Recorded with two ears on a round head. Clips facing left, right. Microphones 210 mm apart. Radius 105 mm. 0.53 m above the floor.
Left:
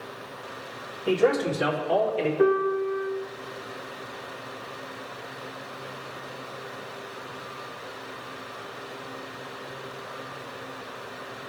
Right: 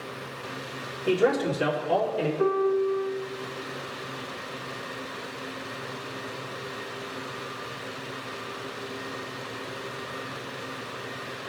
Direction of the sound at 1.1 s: 15° right (ahead or behind).